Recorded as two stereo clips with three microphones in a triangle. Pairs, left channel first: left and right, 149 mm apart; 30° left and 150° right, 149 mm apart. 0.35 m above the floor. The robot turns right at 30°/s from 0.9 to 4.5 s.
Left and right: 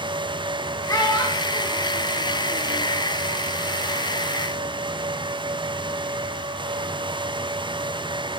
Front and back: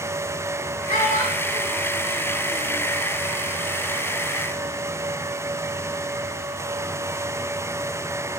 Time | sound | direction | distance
0.9 | a child speaking | 30° left | 1.8 m